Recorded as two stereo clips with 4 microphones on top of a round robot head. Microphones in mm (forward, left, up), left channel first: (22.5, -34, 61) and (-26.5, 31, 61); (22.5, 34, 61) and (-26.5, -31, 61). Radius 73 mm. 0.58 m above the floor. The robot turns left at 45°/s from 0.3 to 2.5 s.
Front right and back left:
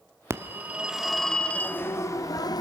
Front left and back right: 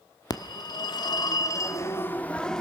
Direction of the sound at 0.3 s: 75° left.